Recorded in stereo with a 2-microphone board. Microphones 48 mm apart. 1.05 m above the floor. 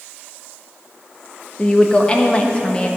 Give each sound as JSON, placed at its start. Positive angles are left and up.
{"t": 1.6, "sound": "a woman speaking", "side_deg": 25, "distance_m": 1.1}